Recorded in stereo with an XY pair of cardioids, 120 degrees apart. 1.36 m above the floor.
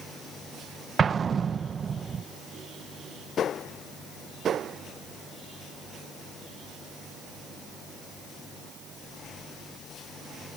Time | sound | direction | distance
1.0 | an explosion | 35° right | ?